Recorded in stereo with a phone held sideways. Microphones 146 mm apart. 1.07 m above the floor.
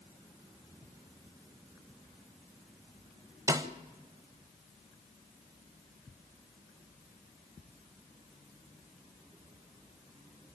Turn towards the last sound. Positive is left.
turn(degrees=-25)  # may be behind; listen again after turning